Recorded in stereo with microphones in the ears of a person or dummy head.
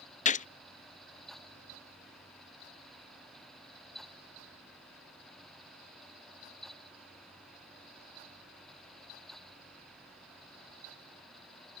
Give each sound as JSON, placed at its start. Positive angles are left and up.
{"t": 0.2, "sound": "a gunshot", "side_deg": 35}